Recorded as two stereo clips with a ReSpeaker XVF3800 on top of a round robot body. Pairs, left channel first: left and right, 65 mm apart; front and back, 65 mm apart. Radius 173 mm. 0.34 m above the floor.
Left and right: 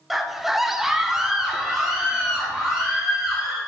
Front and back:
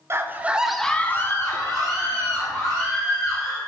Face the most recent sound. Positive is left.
turn(degrees=-5)